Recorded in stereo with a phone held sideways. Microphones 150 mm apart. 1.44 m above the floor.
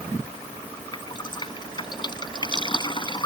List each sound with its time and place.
0.9 s dripping: 30° left (ahead or behind)